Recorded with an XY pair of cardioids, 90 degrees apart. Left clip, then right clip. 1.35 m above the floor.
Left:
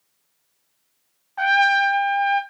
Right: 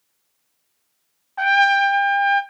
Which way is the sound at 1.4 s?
10° right.